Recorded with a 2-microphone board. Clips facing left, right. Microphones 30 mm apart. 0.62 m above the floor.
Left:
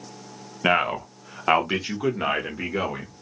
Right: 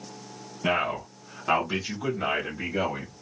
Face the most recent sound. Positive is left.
turn(degrees=40)  # may be behind; listen again after turning